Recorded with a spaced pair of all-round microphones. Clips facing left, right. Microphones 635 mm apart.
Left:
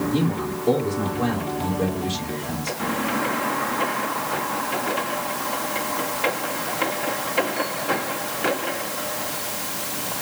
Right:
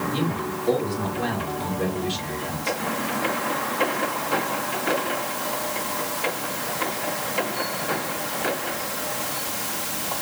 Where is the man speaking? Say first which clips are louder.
Left 3 dB; 65° left (ahead or behind), 3 m.